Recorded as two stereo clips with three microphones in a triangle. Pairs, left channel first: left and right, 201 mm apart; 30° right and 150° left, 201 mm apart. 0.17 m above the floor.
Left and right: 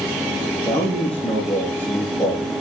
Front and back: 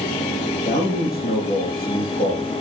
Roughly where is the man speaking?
Ahead.